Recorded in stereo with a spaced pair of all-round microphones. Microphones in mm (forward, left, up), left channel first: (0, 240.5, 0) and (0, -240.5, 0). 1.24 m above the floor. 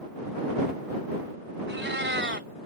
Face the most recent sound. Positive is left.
turn(degrees=-25)  # may be behind; listen again after turning